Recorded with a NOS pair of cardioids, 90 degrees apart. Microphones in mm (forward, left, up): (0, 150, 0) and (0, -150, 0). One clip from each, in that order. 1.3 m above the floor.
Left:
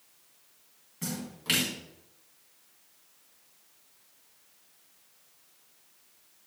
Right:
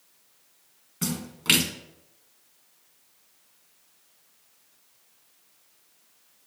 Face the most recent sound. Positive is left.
turn(degrees=-55)